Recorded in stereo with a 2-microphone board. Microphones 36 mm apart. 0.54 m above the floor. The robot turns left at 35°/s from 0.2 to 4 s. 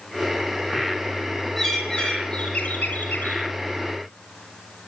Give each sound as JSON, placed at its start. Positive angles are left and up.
{"t": 1.6, "sound": "a bird", "azimuth_deg": -175, "distance_m": 6.0}